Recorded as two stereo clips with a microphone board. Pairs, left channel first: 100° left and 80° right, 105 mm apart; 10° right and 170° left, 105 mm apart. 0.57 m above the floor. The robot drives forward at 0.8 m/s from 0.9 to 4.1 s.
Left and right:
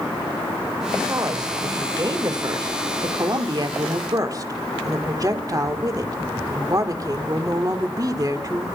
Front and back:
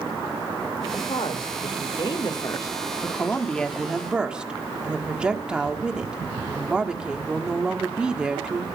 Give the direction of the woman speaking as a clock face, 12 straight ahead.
1 o'clock.